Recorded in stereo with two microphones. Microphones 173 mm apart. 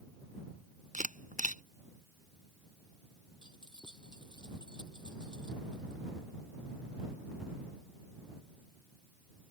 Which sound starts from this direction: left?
Keys jangling, at 3.4 s.